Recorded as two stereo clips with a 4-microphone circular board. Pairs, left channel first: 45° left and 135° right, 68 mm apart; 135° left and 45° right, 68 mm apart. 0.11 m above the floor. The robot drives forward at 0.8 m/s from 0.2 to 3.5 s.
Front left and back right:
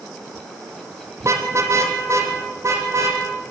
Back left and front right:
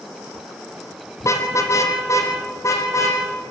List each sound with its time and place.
1.2 s a car horn: straight behind, 2 m